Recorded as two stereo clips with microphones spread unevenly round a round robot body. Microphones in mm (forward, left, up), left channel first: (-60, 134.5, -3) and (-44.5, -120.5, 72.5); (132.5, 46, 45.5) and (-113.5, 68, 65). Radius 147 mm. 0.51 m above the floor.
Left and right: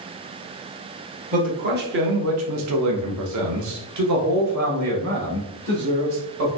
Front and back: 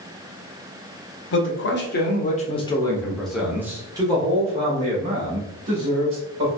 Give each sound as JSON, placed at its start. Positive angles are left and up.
{"t": 1.3, "sound": "a man speaking", "azimuth_deg": -15, "distance_m": 1.2}